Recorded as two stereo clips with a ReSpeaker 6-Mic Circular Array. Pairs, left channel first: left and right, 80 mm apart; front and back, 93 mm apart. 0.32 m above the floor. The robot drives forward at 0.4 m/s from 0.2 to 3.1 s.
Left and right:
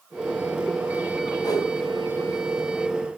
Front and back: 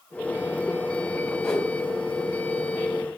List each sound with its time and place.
1.4 s a whoosh: 85° left, 2 m; by 1.7 s 90° left, 2 m